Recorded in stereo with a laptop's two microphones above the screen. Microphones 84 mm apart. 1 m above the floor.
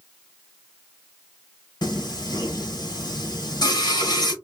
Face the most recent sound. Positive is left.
turn(degrees=65)  # may be behind; listen again after turning